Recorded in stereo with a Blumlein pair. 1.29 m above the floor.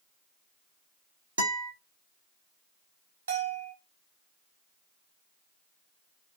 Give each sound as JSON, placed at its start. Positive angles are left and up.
{"t": 1.4, "sound": "a guitar", "azimuth_deg": -65, "distance_m": 1.0}
{"t": 3.3, "sound": "a bell", "azimuth_deg": -65, "distance_m": 1.6}